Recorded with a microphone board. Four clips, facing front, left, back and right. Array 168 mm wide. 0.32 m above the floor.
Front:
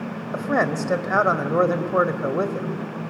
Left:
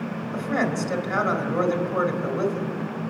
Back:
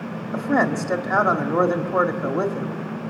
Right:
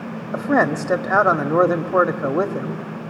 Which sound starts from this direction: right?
A man speaking, at 0.3 s.